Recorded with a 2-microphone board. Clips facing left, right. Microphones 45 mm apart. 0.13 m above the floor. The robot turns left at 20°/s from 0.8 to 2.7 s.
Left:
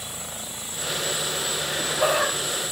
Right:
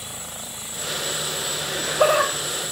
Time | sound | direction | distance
1.7 | laughter | 65° right (ahead or behind) | 7.5 m